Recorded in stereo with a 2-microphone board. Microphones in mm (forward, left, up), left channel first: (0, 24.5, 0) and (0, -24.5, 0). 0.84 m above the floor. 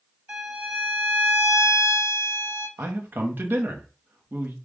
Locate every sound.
0.3 s a violin: 25° right (ahead or behind), 1.2 m
2.8 s a man speaking: 45° right (ahead or behind), 1.0 m